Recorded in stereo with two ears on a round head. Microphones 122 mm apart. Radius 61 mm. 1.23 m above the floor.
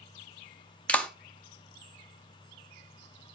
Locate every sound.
0.9 s a clap: 10° left (ahead or behind), 1.0 m